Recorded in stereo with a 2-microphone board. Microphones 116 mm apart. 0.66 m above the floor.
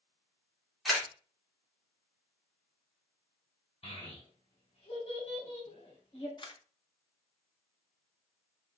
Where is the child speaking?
60° left (ahead or behind), 2.5 m.